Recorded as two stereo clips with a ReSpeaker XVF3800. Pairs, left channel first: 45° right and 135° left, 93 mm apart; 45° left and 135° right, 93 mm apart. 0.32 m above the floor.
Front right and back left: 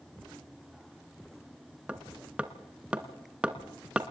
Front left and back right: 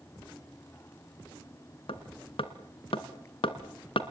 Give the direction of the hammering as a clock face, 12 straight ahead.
10 o'clock.